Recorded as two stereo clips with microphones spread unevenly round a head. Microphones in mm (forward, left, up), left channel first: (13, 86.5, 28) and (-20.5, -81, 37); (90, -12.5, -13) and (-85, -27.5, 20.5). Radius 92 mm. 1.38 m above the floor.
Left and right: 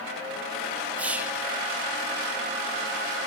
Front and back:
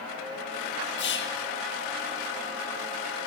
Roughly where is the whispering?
Ahead.